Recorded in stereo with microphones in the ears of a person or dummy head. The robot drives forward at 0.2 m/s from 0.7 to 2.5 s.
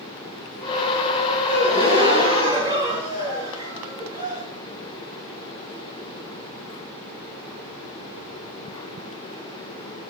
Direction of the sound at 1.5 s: 20° right (ahead or behind).